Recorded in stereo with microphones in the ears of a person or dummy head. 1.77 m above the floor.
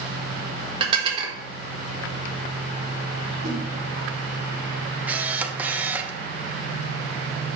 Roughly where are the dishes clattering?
Right.